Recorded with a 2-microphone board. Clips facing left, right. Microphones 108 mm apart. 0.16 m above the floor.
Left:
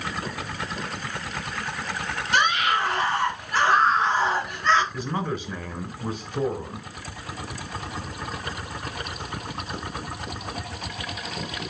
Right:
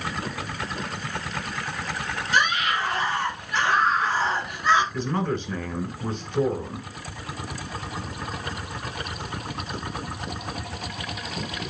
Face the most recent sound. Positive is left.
turn(degrees=10)  # may be behind; listen again after turning